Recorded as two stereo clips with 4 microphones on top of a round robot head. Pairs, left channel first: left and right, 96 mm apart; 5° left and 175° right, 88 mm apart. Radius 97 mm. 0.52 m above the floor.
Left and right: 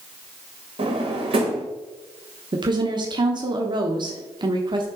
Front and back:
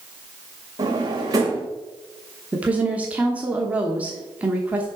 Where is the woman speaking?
105° right, 1.0 m.